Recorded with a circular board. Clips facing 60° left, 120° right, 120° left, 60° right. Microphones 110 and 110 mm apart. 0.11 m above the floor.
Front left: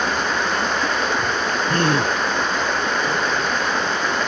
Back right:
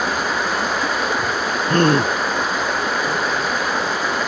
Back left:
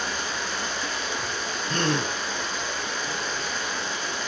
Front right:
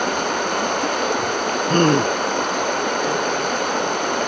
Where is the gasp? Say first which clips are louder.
Back right 5 dB, front right 10 dB; 85° right, 1.0 m.